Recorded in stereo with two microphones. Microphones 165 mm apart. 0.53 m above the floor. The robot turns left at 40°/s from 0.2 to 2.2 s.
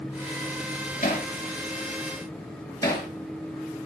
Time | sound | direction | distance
1.0 | hammering | 70° left (ahead or behind) | 5.5 m